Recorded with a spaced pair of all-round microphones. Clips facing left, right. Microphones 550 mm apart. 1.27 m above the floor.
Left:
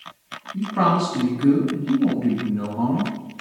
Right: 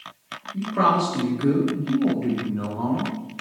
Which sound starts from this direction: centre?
A man speaking, at 0.5 s.